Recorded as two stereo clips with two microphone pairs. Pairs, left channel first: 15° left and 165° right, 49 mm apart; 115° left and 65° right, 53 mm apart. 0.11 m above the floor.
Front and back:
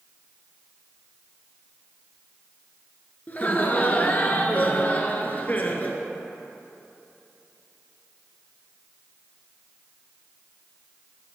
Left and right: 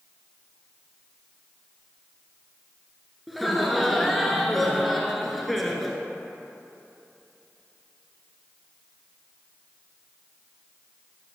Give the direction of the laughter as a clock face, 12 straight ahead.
11 o'clock.